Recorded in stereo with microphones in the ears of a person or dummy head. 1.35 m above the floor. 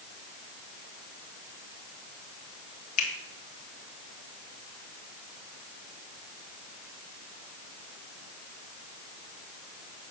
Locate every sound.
3.0 s a finger snap: 40° left (ahead or behind), 1.8 m